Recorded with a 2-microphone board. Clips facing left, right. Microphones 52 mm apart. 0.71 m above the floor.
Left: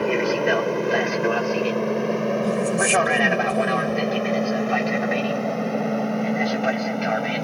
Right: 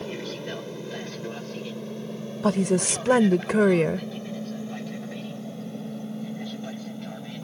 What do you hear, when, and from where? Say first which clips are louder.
0.0 s an aircraft: left 13 dB; 60° left (ahead or behind); by 7.4 s 70° left (ahead or behind)
2.4 s a woman speaking: right 3 dB; 75° right (ahead or behind)